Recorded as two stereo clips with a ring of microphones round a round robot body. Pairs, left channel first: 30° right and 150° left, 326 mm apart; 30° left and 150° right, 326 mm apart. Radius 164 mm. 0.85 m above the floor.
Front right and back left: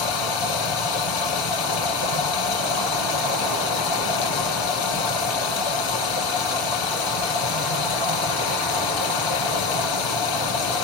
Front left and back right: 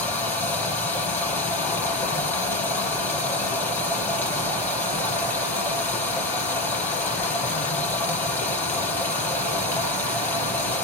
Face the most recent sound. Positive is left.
turn(degrees=-55)